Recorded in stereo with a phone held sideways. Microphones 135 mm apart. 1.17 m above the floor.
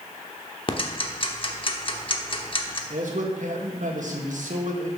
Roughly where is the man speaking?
Right.